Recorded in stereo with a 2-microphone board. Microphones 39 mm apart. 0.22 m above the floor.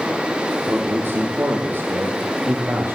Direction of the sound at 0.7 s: 65° right (ahead or behind).